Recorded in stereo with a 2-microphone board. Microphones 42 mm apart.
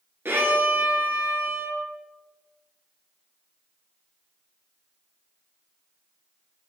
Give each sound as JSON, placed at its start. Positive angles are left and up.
{"t": 0.2, "sound": "a violin", "side_deg": -60, "distance_m": 1.0}